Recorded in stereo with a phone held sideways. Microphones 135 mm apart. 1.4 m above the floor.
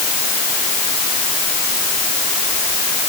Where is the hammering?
No hammering in this recording.